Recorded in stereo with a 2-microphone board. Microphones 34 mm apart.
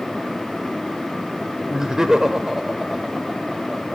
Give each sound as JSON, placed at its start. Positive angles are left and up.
{"t": 1.7, "sound": "laughter", "side_deg": -15, "distance_m": 0.9}